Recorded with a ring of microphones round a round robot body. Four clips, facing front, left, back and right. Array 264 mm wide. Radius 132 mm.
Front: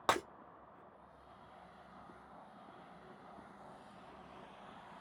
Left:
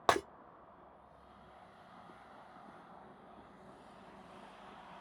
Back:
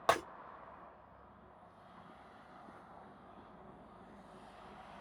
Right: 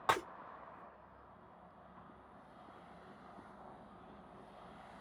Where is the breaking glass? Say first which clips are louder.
Left 4 dB, back 2 dB; 85° left, 1.6 m.